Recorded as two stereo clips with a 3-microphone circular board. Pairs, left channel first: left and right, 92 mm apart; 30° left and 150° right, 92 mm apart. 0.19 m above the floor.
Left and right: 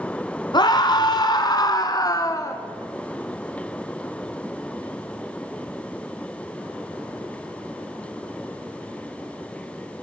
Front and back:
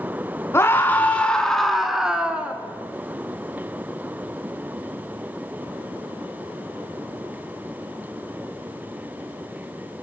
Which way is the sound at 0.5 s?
80° left.